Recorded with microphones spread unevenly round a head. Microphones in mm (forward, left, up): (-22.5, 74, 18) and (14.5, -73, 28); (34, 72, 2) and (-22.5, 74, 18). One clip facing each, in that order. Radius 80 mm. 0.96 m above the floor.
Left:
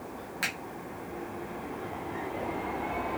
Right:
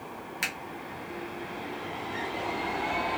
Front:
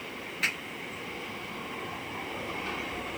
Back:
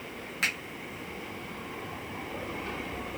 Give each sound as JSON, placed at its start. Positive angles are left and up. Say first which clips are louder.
{"t": 0.4, "sound": "a finger snap", "louder": "left 1 dB, even", "azimuth_deg": -140, "distance_m": 1.3}